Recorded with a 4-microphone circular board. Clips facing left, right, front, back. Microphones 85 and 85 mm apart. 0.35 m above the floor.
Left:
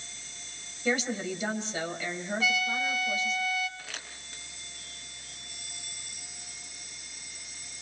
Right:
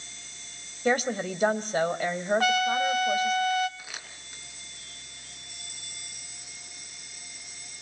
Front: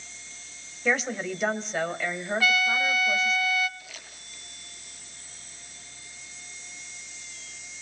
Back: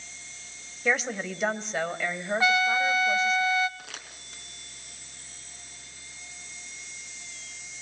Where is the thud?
I don't hear a thud.